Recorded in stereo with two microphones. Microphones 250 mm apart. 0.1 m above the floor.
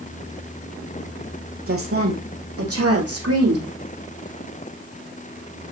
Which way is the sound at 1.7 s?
60° right (ahead or behind).